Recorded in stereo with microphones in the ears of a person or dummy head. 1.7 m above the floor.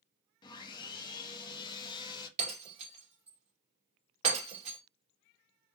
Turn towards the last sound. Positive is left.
turn(degrees=-35)  # may be behind; listen again after turning